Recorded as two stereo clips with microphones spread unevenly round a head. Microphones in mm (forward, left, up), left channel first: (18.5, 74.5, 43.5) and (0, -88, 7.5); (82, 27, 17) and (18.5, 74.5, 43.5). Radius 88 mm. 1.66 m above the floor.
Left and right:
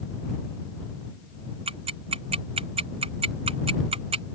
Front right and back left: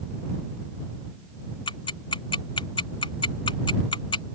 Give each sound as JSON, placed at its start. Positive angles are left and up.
{"t": 1.7, "sound": "ticking", "azimuth_deg": -40}